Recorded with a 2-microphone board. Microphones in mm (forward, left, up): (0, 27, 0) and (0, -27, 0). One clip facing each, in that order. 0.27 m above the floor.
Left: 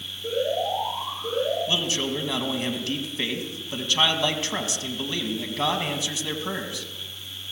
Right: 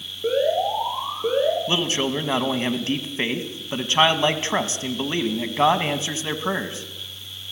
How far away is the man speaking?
About 2 m.